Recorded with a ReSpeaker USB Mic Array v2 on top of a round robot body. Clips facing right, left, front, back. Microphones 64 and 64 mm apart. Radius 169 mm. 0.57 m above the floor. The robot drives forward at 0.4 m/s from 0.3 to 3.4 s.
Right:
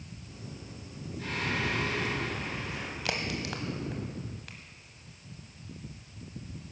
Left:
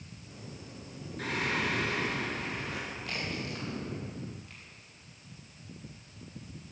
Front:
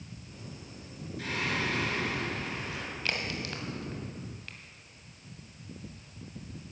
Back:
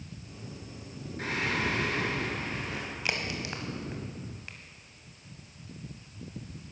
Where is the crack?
105° right, 1.6 m; by 4.6 s 110° right, 1.6 m.